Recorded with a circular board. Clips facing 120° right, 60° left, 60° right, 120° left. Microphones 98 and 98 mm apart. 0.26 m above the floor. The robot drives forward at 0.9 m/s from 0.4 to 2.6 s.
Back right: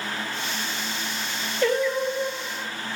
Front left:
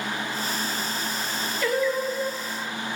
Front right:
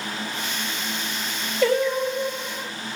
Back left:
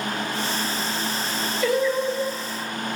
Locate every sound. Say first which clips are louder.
1.6 s singing: back right 2 dB, front right 1 dB; 65° right, 5.5 m; by 2.7 s 75° right, 5.5 m